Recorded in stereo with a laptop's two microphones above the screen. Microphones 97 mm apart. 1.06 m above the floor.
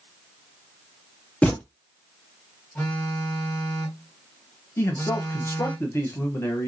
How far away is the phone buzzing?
About 1.3 m.